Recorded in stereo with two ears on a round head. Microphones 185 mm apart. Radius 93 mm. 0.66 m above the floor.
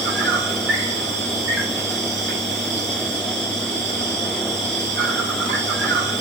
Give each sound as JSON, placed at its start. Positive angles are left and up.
{"t": 0.0, "sound": "an insect", "side_deg": -60, "distance_m": 1.7}